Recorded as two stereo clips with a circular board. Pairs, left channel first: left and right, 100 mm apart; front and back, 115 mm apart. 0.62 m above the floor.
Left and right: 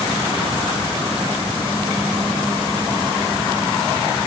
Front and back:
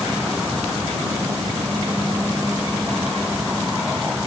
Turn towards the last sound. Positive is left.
No sound to turn to.